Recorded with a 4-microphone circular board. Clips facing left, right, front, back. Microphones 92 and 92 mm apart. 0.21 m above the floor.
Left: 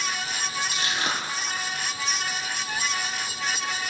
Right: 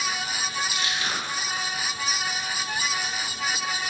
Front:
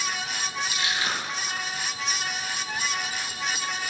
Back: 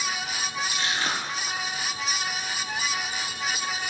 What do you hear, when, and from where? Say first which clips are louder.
0.7 s crushing: left 1 dB, back 1 dB; 135° left, 5.5 m